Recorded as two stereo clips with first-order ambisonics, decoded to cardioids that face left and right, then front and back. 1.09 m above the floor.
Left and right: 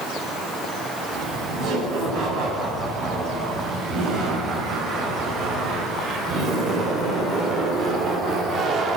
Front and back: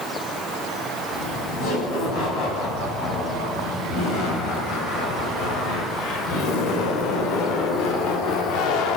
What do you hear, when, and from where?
1.1 s laughter: 40° right, 9.5 m; by 9.0 s 30° right, 2.5 m